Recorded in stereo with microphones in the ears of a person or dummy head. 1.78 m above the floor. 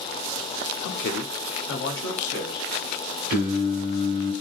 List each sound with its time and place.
0.8 s a man speaking: 60° left (ahead or behind), 0.7 m
3.3 s singing: 55° right (ahead or behind), 1.0 m